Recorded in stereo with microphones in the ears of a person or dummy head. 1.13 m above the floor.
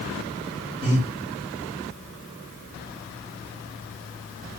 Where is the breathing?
5° left (ahead or behind), 1.9 m.